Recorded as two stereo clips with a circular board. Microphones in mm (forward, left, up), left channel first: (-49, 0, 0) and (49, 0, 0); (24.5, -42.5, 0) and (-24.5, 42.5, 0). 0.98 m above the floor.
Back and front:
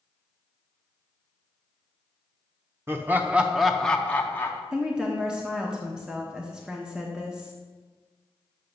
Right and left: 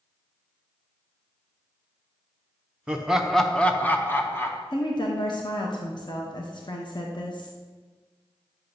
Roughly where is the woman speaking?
Right.